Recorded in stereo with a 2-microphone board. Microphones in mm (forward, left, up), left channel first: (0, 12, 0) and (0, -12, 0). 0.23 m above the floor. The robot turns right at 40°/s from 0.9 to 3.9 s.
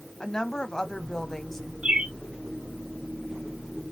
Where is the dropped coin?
No dropped coin in this recording.